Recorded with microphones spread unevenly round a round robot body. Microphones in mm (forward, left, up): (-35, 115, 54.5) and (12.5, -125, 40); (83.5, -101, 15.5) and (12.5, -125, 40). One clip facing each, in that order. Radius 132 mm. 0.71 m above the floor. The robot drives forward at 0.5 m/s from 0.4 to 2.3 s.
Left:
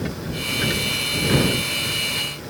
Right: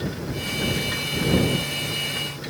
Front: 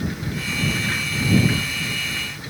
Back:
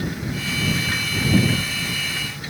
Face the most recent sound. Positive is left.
No sound to turn to.